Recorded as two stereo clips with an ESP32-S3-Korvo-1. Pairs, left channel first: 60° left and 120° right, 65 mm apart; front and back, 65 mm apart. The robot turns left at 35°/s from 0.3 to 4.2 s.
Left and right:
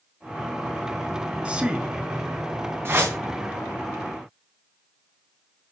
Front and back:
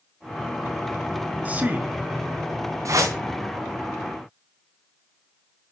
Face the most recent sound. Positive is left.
turn(degrees=150)